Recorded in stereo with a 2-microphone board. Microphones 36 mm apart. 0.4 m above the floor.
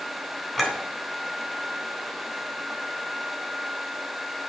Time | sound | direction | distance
0.6 | a clink | centre (ahead or behind) | 3 m